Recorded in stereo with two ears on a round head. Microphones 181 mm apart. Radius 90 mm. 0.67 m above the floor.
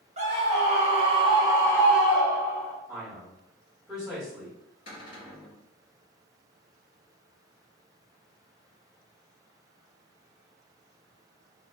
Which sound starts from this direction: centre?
A man speaking, at 2.9 s.